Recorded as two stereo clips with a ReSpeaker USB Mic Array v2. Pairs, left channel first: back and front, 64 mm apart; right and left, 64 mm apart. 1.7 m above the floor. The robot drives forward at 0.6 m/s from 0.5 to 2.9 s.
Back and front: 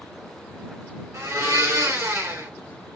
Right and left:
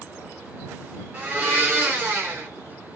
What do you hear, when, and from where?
1.1 s a blender: 25° left, 2.5 m; by 2.5 s 35° left, 1.9 m